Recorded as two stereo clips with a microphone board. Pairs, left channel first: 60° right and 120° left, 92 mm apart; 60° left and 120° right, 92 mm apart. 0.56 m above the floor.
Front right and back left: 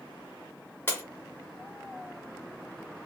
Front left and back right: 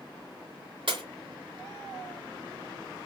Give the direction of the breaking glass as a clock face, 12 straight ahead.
4 o'clock.